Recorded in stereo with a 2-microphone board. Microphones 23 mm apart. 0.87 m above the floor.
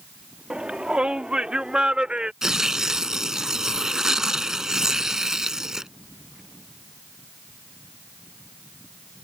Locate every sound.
0.5 s a shout: 45° right (ahead or behind); by 2.3 s 40° right (ahead or behind)
2.4 s tearing paper: 20° right (ahead or behind)